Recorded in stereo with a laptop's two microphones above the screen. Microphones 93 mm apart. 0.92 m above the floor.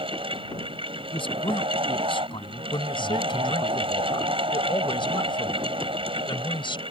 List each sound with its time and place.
0.0 s a fan: 80° right
1.1 s a man speaking: 70° left (ahead or behind)
2.7 s a man speaking: 65° left (ahead or behind)